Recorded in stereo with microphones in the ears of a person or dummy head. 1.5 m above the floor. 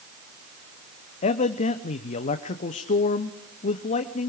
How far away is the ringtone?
I don't hear a ringtone.